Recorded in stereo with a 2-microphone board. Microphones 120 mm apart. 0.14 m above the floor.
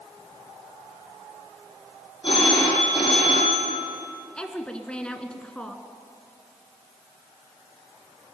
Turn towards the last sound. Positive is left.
turn(degrees=10)  # may be behind; listen again after turning